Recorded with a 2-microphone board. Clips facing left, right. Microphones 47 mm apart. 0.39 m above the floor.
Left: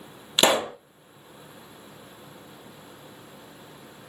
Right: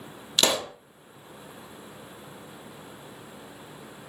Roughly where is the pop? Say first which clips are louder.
Left 4 dB; left.